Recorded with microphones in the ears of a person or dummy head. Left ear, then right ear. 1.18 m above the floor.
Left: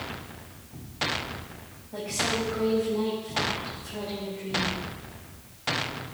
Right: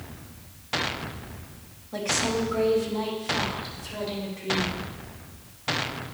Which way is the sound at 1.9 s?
70° right (ahead or behind).